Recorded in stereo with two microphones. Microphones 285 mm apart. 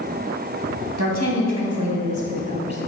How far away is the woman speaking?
About 3.5 m.